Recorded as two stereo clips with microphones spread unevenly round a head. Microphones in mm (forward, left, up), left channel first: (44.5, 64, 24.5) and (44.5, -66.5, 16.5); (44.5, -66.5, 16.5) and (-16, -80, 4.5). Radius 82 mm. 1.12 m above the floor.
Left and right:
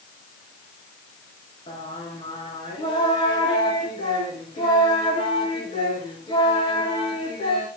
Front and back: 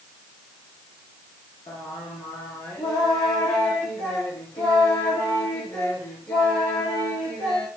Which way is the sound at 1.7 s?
35° left.